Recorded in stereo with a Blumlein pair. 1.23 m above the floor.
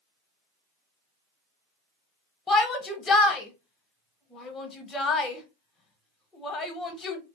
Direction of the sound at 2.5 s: 20° left.